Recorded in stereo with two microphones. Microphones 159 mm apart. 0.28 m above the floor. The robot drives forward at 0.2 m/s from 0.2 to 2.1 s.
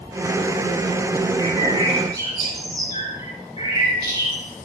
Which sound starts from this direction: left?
A bird, at 1.4 s.